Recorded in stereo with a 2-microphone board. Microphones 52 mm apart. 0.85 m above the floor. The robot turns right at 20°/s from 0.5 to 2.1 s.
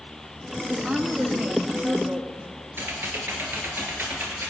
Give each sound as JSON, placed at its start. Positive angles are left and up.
{"t": 0.7, "sound": "a woman speaking", "side_deg": -15, "distance_m": 1.2}
{"t": 2.7, "sound": "typing on a keyboard", "side_deg": -45, "distance_m": 2.5}